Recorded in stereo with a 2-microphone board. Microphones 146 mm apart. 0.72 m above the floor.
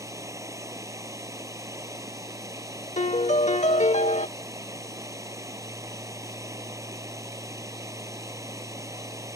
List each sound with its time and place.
0.0 s running water: 20° right (ahead or behind)
3.0 s a piano: 55° left (ahead or behind)